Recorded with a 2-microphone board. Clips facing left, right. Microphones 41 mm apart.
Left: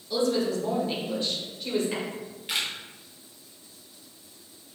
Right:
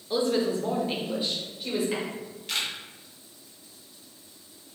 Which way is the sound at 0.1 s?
30° right (ahead or behind).